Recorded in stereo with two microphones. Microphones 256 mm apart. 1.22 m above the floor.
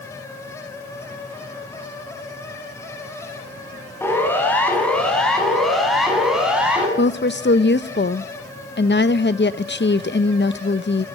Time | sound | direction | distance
4.0 | a siren | 10° left (ahead or behind) | 7.5 m
7.0 | a woman speaking | 45° left (ahead or behind) | 0.8 m